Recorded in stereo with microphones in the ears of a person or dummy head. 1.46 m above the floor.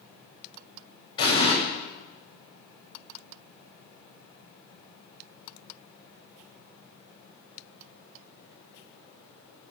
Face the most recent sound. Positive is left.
turn(degrees=25)  # may be behind; listen again after turning